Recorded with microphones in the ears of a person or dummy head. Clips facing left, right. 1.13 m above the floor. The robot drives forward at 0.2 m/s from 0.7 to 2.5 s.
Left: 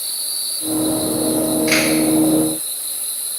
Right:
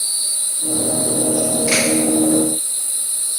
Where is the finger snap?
15° left (ahead or behind), 1.9 m.